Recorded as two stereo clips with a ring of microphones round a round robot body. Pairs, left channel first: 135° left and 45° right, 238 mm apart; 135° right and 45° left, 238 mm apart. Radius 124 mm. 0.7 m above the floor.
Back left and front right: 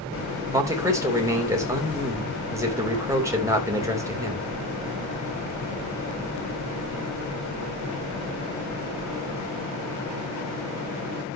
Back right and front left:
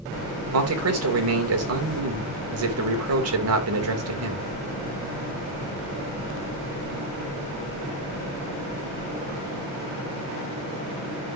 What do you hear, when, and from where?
0.5 s a man speaking: 30° left, 3 m